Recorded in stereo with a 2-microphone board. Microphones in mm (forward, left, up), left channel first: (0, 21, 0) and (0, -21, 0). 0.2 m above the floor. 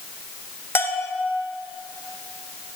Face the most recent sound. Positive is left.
turn(degrees=70)  # may be behind; listen again after turning